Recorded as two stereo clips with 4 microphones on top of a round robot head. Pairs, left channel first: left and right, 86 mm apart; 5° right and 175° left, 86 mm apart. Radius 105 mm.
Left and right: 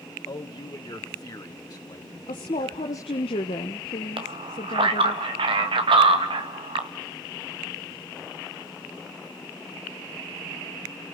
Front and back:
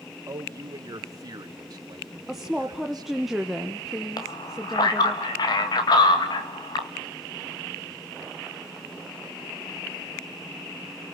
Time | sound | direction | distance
0.3 | a man speaking | 125° left | 1.8 m
2.3 | a woman speaking | 85° left | 1.2 m
4.2 | a man speaking | 55° right | 1.9 m